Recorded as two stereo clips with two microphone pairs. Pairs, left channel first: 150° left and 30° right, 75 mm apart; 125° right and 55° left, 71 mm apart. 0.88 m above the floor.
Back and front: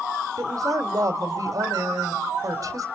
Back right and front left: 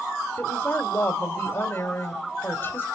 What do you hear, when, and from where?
0.4 s a woman speaking: 70° right, 2.5 m